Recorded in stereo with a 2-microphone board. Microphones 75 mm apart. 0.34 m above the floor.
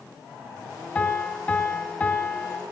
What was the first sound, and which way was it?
A piano, 20° left (ahead or behind).